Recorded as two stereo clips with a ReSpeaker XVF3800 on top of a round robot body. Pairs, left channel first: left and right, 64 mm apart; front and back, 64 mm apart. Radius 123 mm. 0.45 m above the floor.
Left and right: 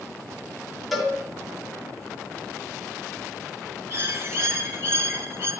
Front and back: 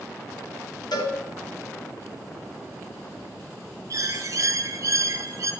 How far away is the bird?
About 1.5 m.